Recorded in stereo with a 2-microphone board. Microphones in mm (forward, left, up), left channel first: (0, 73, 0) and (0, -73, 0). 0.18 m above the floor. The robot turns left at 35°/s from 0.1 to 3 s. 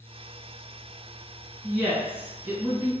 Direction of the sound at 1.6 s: 5° left.